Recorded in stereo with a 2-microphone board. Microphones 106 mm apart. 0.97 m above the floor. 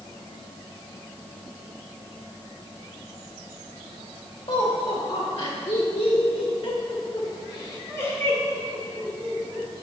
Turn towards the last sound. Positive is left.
turn(degrees=5)  # may be behind; listen again after turning